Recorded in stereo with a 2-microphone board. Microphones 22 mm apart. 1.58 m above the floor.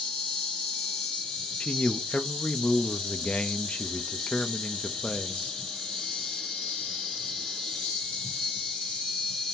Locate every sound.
0.0 s an insect: 55° left (ahead or behind), 1.9 m
1.6 s a man speaking: 80° left, 0.6 m